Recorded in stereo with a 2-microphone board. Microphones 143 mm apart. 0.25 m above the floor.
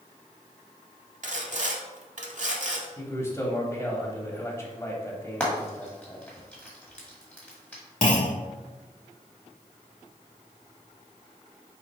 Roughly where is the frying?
Centre.